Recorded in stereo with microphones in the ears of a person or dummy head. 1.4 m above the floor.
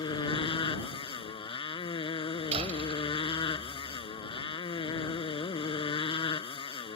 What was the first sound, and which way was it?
A motorcycle, 25° left (ahead or behind).